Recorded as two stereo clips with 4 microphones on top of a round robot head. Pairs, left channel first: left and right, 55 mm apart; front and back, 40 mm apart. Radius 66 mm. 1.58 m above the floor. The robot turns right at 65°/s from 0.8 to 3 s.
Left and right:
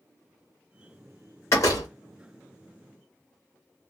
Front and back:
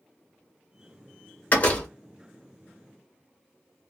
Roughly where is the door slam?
Ahead left.